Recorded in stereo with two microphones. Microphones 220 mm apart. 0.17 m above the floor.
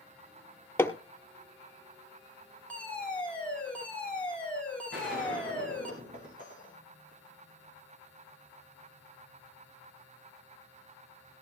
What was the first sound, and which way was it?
Hammering, 10° left (ahead or behind).